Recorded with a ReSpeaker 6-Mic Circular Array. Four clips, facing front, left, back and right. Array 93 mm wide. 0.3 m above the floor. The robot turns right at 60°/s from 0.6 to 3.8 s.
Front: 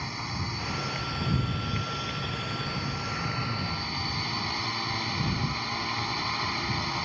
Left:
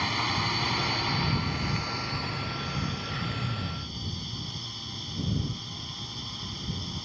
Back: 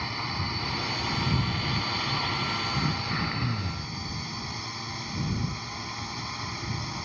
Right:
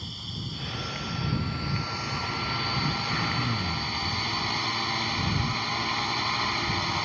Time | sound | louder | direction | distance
0.0 | a drone | left 11 dB, back 2 dB | 100° left | ?
2.7 | throat clearing | right 5 dB, back 3 dB | 160° right | ?